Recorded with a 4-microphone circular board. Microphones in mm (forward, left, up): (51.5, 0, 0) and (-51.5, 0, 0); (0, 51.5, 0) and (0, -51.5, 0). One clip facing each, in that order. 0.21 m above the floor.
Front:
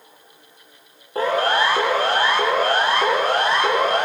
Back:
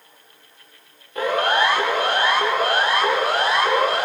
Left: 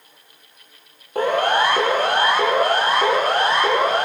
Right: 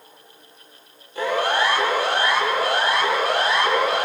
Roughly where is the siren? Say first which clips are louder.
Front 1 dB, left 3 dB; ahead left.